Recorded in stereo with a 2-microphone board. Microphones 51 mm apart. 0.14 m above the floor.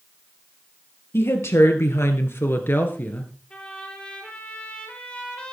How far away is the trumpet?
About 3 m.